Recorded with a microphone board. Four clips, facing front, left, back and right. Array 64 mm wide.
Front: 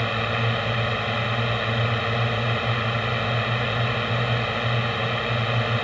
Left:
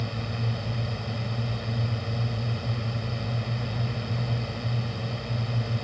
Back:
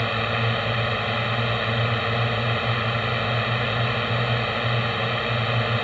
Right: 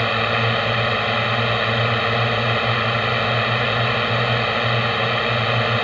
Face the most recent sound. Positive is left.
turn(degrees=-90)